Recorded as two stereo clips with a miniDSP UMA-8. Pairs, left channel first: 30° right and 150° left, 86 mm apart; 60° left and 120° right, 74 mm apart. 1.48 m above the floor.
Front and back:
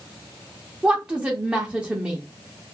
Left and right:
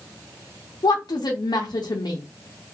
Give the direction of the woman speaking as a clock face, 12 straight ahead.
10 o'clock.